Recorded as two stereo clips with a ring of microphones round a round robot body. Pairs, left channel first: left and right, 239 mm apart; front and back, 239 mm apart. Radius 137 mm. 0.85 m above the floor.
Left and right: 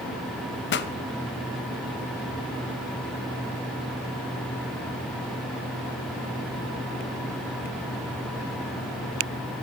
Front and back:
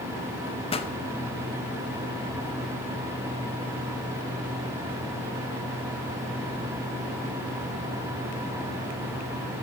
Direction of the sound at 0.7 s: 60° left.